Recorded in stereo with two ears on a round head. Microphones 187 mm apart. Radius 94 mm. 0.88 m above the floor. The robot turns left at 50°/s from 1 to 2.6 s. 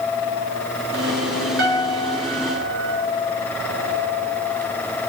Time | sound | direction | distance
1.6 | a piano | 55° right | 3.5 m